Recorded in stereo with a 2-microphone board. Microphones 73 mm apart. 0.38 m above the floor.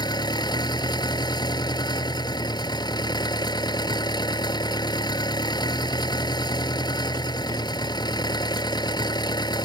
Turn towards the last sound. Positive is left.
turn(degrees=80)